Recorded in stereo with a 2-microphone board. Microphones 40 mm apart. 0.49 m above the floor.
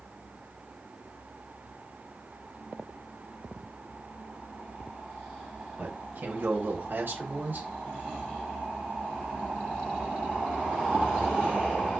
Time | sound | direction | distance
5.8 | a man speaking | 60° right (ahead or behind) | 3.5 m